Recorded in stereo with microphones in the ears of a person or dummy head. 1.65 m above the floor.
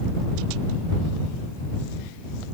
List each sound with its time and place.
Only background noise.